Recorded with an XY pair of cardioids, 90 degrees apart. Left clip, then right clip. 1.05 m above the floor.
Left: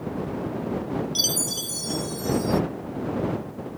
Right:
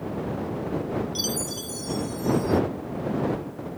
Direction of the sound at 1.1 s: 50° left.